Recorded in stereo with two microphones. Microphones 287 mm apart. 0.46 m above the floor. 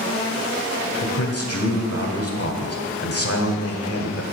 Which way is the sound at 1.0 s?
55° left (ahead or behind).